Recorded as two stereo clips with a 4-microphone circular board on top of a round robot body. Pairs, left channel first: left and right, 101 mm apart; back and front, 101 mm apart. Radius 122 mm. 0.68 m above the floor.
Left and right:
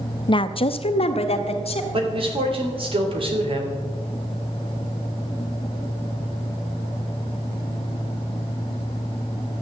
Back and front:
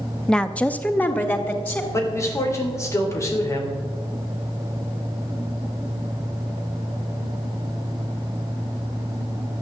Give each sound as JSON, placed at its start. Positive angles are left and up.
{"t": 0.3, "sound": "a woman speaking", "azimuth_deg": 95, "distance_m": 0.7}
{"t": 1.9, "sound": "a man speaking", "azimuth_deg": -120, "distance_m": 3.0}